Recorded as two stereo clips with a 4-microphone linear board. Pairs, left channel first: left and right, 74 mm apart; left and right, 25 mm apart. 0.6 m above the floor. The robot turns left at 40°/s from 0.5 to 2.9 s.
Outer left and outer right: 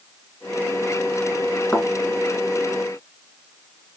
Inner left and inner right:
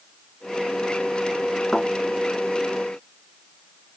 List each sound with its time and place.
1.7 s a thud: 15° left (ahead or behind), 3 m; by 1.9 s 20° left (ahead or behind), 3 m